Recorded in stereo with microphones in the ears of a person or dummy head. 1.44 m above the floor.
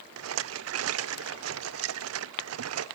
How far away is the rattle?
About 0.7 m.